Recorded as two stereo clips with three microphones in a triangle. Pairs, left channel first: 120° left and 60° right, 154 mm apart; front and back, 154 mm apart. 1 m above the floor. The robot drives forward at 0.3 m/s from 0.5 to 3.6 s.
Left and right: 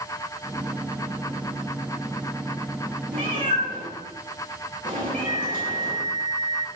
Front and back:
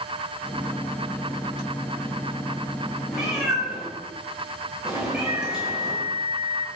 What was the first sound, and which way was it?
A cat meowing, 95° right.